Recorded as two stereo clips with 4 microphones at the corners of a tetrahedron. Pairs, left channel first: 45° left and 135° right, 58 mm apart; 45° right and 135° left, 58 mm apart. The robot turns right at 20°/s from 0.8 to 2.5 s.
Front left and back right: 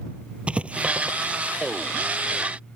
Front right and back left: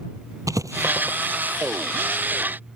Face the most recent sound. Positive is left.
turn(degrees=-170)